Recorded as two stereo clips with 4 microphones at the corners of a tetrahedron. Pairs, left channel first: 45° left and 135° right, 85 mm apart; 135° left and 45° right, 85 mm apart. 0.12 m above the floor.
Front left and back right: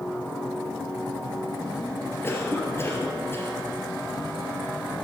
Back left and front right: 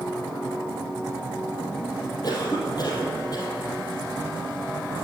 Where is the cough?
105° left, 3.5 m.